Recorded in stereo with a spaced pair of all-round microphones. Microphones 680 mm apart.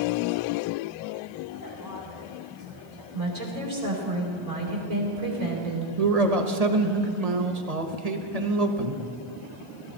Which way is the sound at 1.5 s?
30° left (ahead or behind).